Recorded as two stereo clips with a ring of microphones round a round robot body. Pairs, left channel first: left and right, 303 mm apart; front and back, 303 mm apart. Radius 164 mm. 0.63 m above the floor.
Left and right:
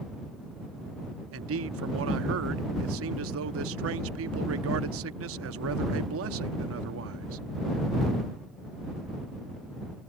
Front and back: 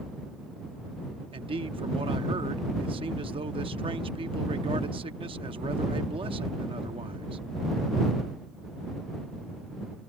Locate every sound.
1.3 s a man speaking: 110° right